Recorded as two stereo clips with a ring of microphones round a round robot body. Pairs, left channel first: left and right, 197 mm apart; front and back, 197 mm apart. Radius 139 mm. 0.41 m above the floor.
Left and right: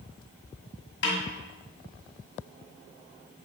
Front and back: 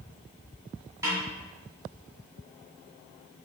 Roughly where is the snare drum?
Left.